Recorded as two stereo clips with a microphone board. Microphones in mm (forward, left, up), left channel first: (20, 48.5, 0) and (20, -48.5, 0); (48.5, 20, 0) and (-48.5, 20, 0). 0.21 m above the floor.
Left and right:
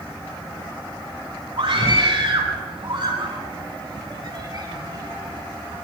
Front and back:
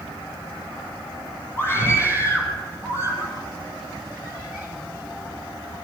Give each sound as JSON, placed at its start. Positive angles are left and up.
{"t": 1.6, "sound": "a scream", "azimuth_deg": -65, "distance_m": 6.5}